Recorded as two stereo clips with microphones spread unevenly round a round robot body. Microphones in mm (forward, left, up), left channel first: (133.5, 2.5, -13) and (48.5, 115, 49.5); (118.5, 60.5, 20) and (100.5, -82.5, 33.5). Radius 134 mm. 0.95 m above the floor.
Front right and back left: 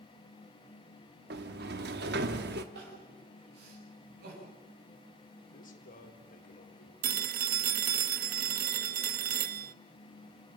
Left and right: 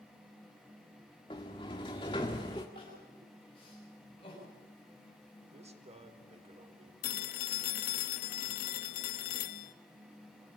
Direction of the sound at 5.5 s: 55° right.